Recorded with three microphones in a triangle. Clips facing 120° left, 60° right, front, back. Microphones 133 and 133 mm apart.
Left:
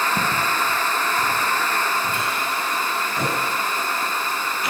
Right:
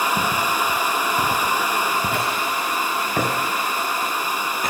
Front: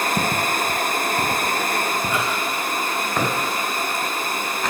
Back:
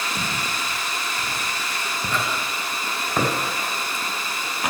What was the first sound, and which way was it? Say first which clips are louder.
Footsteps: right 1 dB, front 7 dB; 35° left.